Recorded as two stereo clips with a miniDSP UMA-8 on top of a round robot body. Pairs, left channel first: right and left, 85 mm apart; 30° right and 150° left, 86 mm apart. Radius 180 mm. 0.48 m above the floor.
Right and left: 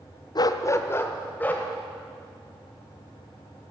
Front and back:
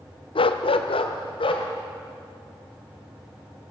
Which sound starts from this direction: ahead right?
A dog barking, at 0.3 s.